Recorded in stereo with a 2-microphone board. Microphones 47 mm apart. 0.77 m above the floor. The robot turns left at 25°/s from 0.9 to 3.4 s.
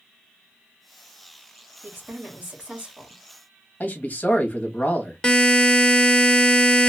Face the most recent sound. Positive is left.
turn(degrees=15)  # may be behind; listen again after turning